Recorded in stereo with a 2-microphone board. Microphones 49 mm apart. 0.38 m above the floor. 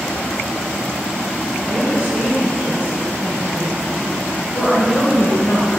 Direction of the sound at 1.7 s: 15° left (ahead or behind).